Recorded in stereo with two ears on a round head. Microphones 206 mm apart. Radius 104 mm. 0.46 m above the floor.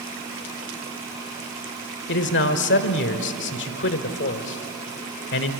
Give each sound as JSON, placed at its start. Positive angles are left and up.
{"t": 2.1, "sound": "a man speaking", "side_deg": 55, "distance_m": 1.5}